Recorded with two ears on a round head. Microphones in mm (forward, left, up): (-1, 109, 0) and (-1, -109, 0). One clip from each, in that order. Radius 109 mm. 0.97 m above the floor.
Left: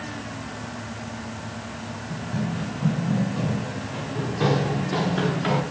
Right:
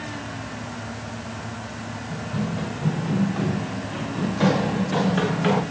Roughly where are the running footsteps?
Right.